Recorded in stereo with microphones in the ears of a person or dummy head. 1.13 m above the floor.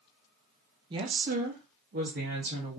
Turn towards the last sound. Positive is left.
turn(degrees=-45)  # may be behind; listen again after turning